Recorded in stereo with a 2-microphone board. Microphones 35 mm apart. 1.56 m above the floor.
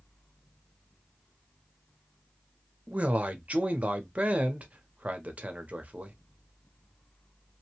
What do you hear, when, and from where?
2.9 s a man speaking: 45° right (ahead or behind), 0.7 m